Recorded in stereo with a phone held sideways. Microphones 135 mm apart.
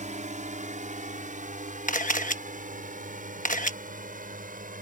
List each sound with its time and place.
0.0 s a drone: 60° right (ahead or behind); by 4.8 s 70° right (ahead or behind)
1.9 s a camera shutter: 65° left (ahead or behind)